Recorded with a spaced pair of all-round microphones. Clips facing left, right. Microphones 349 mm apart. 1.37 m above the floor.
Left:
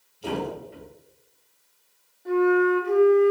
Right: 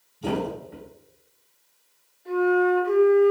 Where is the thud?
60° right (ahead or behind), 3 m.